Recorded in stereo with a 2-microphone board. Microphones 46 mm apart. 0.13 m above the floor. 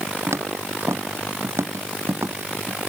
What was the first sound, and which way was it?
Footsteps, 80° right.